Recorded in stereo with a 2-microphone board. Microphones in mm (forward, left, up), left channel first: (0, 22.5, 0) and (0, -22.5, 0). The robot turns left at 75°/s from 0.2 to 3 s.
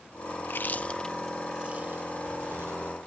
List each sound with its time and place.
0.4 s chewing: 60° left (ahead or behind), 0.8 m; by 2.9 s 50° right (ahead or behind), 0.8 m